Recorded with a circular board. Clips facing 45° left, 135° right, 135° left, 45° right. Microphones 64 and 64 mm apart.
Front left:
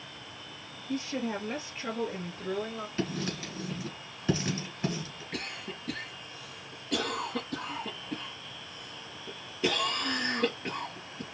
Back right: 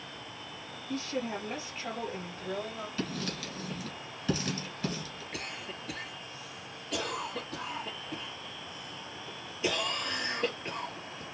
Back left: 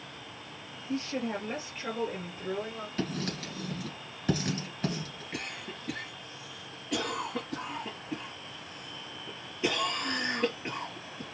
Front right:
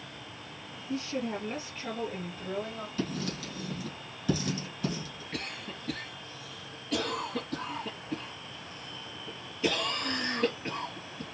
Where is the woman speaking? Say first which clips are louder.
Front left 2 dB, even; 95° left, 2.5 m; by 2.9 s 70° left, 2.5 m.